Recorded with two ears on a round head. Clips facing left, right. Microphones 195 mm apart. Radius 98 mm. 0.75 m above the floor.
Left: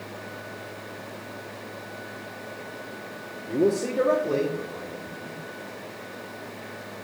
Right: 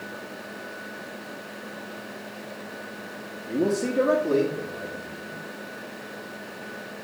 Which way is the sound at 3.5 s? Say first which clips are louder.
Left 1 dB; 20° right (ahead or behind).